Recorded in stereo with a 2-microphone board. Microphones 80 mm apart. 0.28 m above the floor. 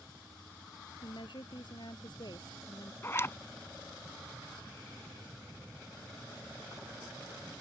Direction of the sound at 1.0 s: 70° left (ahead or behind).